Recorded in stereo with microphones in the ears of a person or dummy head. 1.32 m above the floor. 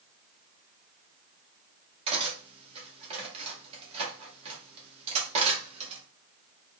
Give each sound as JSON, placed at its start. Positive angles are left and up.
{"t": 2.1, "sound": "cutlery clinking", "side_deg": -35, "distance_m": 1.3}